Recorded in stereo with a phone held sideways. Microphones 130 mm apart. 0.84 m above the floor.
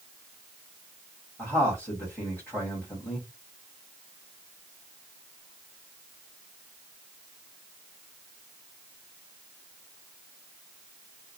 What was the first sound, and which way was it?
A man speaking, 10° left (ahead or behind).